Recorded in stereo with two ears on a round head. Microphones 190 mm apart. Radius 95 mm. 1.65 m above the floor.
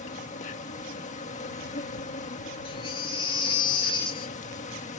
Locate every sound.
0.0 s an insect: 35° left (ahead or behind)
2.6 s a baby crying: 25° left (ahead or behind)